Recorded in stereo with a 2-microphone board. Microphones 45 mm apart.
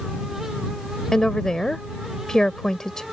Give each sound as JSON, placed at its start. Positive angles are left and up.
{"t": 1.1, "sound": "a woman speaking", "side_deg": 15}